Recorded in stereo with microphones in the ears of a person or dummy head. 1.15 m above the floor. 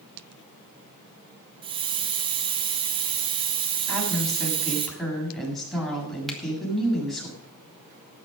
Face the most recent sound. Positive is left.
turn(degrees=5)  # may be behind; listen again after turning